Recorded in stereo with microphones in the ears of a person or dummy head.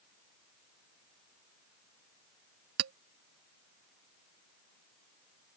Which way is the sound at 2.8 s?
75° right (ahead or behind).